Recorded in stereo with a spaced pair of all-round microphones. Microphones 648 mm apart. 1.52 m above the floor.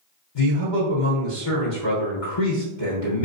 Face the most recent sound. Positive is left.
turn(degrees=45)  # may be behind; listen again after turning